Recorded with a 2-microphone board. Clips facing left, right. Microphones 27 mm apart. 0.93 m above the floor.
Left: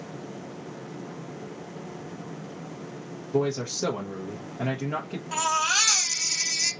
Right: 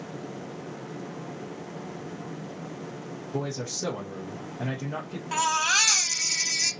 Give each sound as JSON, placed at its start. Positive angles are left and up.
{"t": 3.3, "sound": "a man speaking", "side_deg": 45, "distance_m": 1.1}
{"t": 5.3, "sound": "a baby crying", "side_deg": -25, "distance_m": 1.4}